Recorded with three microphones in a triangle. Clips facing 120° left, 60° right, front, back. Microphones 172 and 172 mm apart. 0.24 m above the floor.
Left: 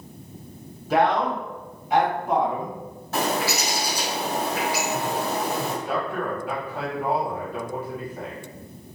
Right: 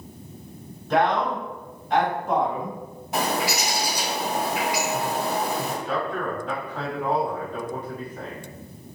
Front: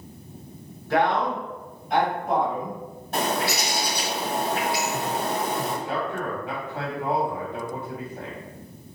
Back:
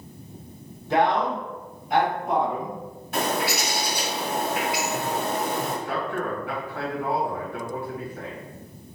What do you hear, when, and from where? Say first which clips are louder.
0.9 s a man speaking: left 1 dB, back 1 dB; 165° right, 1.5 m; by 2.8 s 60° left, 1.6 m
3.1 s a bird: even, even; straight ahead, 1.9 m
5.8 s a man speaking: even, even; 45° left, 1.6 m